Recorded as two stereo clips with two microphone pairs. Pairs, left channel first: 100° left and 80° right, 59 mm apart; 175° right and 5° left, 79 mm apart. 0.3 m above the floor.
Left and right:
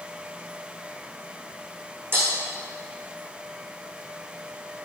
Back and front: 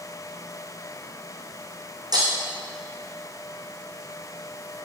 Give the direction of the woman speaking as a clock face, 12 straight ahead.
I don't hear a woman speaking.